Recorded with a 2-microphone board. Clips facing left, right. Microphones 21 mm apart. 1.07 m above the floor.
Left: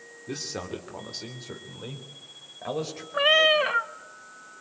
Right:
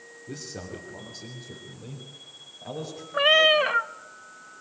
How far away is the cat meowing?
About 0.6 m.